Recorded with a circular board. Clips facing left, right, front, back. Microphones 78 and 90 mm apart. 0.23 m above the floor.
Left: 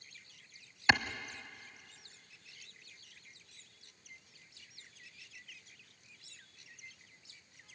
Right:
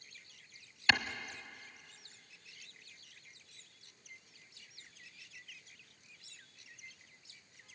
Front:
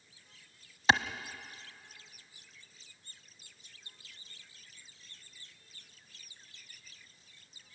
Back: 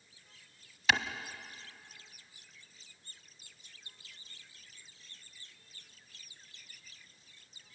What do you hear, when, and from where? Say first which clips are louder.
0.9 s a clap: left 3 dB, front 3 dB; 30° left, 0.9 m